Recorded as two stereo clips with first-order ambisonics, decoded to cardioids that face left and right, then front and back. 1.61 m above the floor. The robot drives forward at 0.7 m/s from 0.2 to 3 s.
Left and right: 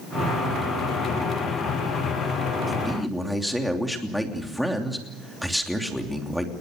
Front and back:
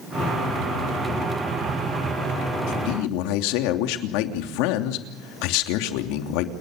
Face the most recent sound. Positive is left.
turn(degrees=0)